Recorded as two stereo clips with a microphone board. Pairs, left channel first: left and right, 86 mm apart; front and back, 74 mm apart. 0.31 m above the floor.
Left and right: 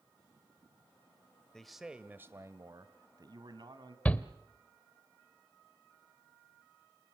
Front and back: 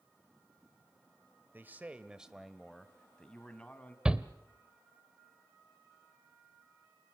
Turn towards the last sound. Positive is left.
turn(degrees=130)